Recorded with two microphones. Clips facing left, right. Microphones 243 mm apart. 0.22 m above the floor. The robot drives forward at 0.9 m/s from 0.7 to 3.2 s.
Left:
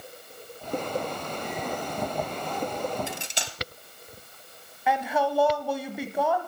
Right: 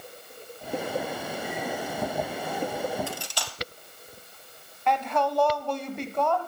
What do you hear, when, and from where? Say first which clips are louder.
3.1 s cutlery clinking: even; 20° left (ahead or behind), 0.8 m
4.9 s a woman speaking: even; 5° left (ahead or behind), 1.0 m